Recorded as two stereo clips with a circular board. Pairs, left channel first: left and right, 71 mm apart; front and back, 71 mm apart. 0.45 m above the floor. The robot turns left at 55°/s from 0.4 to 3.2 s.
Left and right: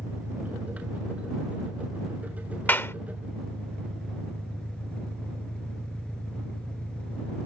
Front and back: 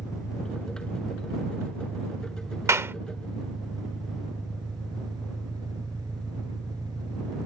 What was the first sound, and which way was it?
An engine running, 40° right.